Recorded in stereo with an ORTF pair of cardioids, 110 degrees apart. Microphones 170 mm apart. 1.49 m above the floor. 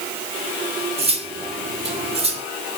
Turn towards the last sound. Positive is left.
turn(degrees=-35)